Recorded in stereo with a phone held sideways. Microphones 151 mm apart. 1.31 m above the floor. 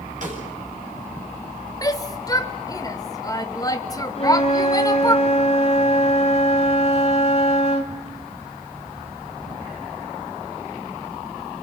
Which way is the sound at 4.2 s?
45° left (ahead or behind).